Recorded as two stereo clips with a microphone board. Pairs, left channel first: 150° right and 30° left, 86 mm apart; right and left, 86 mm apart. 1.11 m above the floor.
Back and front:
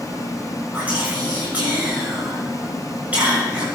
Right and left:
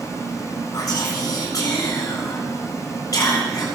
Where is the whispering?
45° right, 7.5 m.